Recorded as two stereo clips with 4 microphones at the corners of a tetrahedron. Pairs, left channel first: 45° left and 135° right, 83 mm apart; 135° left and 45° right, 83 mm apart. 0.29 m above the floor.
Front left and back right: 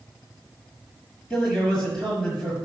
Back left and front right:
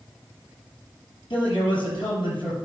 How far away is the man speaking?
About 5 m.